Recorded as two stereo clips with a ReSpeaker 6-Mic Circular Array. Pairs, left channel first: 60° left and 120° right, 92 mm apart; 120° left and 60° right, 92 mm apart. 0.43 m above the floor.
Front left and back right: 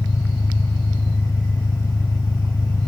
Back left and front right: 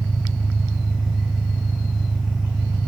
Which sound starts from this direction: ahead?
An engine running, at 0.0 s.